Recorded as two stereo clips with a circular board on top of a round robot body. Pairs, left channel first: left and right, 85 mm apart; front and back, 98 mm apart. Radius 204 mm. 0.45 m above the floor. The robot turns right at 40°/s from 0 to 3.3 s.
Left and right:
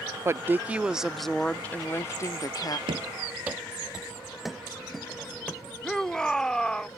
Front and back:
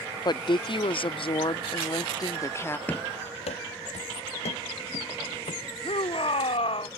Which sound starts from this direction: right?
Running footsteps, at 2.9 s.